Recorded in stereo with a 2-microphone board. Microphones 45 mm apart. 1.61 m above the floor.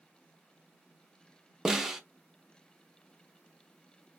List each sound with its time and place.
1.6 s a snare drum: 10° right (ahead or behind), 0.5 m